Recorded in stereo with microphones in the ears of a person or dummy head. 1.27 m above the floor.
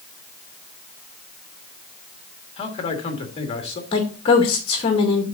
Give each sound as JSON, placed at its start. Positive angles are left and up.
{"t": 2.6, "sound": "a man speaking", "side_deg": 30, "distance_m": 1.9}
{"t": 3.9, "sound": "a woman speaking", "side_deg": 30, "distance_m": 2.0}